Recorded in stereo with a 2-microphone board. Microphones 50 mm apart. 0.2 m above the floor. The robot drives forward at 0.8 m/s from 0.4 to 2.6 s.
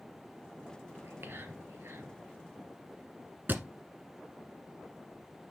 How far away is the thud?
About 1.3 m.